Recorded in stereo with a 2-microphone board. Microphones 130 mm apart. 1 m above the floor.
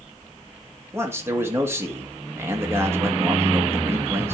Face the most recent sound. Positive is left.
turn(degrees=-20)  # may be behind; listen again after turning